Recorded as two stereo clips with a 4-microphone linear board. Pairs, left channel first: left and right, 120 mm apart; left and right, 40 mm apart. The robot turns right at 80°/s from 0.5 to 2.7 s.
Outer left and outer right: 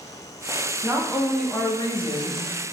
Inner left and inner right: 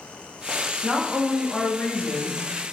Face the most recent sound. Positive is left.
turn(degrees=120)